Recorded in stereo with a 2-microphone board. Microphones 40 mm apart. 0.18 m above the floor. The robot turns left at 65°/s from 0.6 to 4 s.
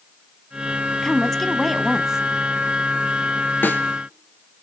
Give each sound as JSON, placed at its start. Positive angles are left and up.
{"t": 1.0, "sound": "a woman speaking", "side_deg": 15, "distance_m": 1.0}
{"t": 3.6, "sound": "a snare drum", "side_deg": 55, "distance_m": 1.9}